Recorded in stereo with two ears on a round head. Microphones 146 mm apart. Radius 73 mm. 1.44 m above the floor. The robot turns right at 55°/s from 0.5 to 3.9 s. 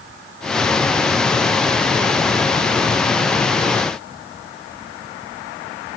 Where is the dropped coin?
No dropped coin in this recording.